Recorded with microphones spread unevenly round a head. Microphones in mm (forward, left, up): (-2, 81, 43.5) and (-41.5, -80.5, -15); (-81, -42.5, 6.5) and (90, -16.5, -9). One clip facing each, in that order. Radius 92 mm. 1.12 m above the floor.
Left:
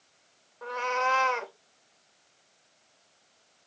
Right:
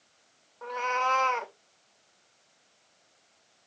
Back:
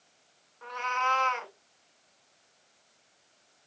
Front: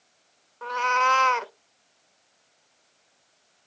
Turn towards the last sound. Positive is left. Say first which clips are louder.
# left 1 dB, front 7 dB
turn(degrees=10)